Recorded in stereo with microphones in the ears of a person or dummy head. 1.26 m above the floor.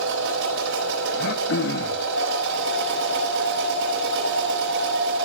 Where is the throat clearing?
65° left (ahead or behind), 3 m.